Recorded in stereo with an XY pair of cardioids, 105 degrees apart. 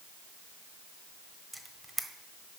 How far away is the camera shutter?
About 1.1 m.